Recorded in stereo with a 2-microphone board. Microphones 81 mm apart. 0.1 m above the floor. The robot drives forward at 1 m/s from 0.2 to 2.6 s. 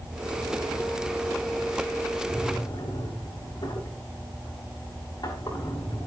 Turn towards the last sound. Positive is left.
turn(degrees=60)  # may be behind; listen again after turning